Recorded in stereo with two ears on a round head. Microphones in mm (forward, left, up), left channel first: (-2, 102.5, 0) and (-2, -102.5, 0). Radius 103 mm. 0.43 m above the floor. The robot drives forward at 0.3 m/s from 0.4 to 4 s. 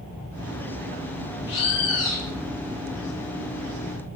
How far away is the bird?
About 0.7 m.